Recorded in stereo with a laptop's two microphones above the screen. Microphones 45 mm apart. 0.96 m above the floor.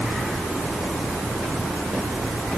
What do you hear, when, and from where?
Only background noise.